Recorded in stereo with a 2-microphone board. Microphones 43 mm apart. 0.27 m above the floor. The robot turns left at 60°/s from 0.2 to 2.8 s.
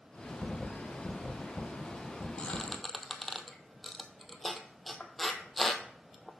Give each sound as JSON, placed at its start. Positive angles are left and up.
{"t": 2.4, "sound": "a squeak", "side_deg": 25, "distance_m": 0.8}